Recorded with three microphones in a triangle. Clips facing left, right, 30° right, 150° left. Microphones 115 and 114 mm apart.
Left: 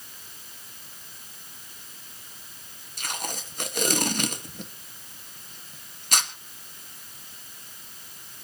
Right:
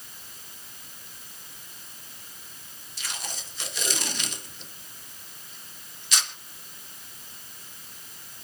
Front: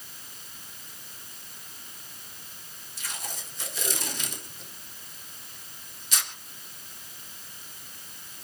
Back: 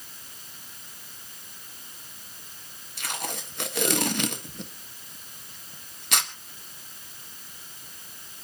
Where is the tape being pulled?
130° left, 1.6 m.